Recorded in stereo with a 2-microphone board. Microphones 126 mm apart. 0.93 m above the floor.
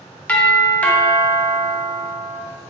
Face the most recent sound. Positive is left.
turn(degrees=10)  # may be behind; listen again after turning